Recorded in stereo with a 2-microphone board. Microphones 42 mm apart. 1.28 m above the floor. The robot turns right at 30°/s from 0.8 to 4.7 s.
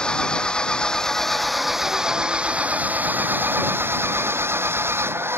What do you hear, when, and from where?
0.0 s an engine running: 160° left; by 5.4 s 85° right